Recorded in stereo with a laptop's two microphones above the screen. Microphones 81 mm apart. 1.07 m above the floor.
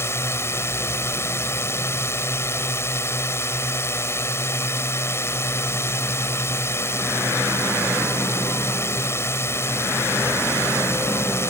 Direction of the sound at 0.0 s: 30° left (ahead or behind).